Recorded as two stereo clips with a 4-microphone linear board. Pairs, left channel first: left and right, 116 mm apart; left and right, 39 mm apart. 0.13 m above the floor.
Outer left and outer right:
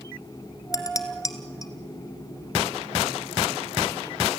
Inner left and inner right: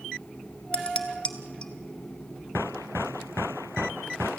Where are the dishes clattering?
30° left (ahead or behind), 1.4 m.